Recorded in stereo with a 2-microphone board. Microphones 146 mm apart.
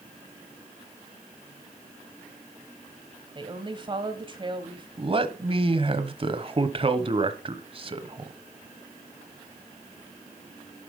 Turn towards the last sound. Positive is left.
turn(degrees=-40)  # may be behind; listen again after turning